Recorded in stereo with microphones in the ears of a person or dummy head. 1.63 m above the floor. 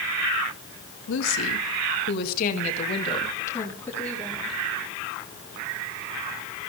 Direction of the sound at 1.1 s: 80° left.